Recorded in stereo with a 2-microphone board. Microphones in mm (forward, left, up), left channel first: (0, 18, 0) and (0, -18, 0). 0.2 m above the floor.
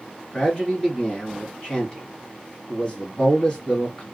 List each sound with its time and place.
0.3 s a man speaking: 30° left (ahead or behind), 1.8 m